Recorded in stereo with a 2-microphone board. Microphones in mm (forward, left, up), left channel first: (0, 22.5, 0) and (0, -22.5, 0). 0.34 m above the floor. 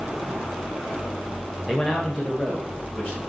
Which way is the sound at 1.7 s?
Centre (ahead or behind).